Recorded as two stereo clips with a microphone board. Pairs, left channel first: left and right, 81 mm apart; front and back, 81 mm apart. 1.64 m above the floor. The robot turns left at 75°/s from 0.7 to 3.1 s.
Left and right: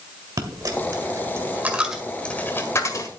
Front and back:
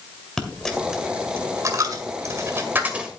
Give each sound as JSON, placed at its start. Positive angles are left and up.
{"t": 0.4, "sound": "a dropped coin", "azimuth_deg": -80, "distance_m": 1.8}